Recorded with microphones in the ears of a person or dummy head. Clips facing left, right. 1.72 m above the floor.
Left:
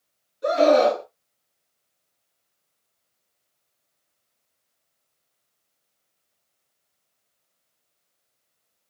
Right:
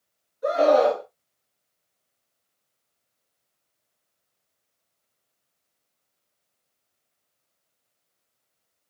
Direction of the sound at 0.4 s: 35° left (ahead or behind).